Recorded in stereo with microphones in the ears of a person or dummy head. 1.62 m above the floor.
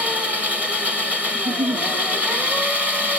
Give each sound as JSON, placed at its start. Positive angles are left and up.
{"t": 0.0, "sound": "an engine running", "side_deg": -5, "distance_m": 1.5}
{"t": 1.3, "sound": "a giggle", "side_deg": -35, "distance_m": 0.9}